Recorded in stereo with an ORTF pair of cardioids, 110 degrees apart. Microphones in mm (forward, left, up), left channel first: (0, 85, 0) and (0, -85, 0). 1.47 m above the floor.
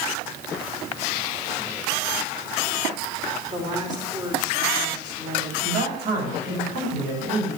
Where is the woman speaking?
25° right, 5.5 m.